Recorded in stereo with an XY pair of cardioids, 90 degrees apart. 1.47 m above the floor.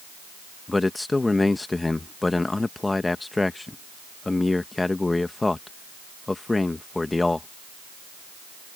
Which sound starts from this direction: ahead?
A man speaking, at 0.7 s.